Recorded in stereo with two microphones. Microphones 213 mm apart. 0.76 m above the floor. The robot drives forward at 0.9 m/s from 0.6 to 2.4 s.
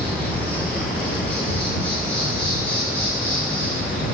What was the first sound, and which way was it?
An insect, 5° left (ahead or behind).